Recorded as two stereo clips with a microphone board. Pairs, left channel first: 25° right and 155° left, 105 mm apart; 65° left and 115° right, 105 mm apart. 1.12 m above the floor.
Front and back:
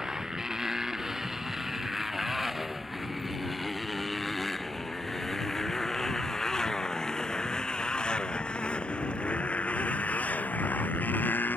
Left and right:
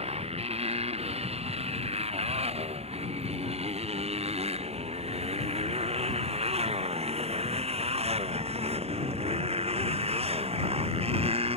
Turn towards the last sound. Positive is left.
turn(degrees=-95)